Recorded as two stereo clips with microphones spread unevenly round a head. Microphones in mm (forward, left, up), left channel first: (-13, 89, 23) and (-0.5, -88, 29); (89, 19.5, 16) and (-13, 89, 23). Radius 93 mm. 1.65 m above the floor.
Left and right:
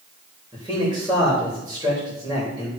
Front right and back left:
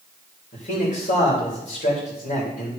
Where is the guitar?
No guitar in this recording.